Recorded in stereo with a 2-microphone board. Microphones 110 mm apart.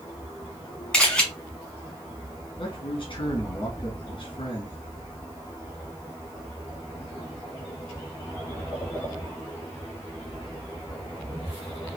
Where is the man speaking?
45° left (ahead or behind), 2 m.